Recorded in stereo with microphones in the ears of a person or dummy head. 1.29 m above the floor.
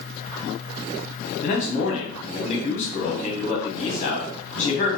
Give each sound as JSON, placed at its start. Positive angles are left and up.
{"t": 1.4, "sound": "a man speaking", "side_deg": 40, "distance_m": 0.9}